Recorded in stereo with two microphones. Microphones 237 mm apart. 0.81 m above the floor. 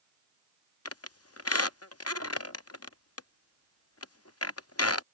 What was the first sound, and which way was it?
A squeak, 80° left.